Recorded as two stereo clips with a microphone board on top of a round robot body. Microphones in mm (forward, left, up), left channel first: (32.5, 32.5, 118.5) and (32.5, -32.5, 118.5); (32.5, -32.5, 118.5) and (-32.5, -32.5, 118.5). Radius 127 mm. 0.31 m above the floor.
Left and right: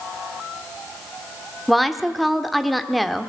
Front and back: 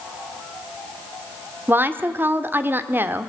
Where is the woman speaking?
Straight behind, 1.3 m.